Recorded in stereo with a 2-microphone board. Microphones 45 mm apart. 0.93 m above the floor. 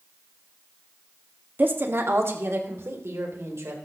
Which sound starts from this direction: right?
A woman speaking, at 1.6 s.